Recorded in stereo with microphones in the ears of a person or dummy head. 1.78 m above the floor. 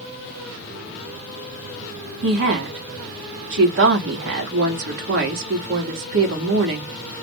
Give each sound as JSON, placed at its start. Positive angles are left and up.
{"t": 2.2, "sound": "a woman speaking", "side_deg": -65, "distance_m": 1.1}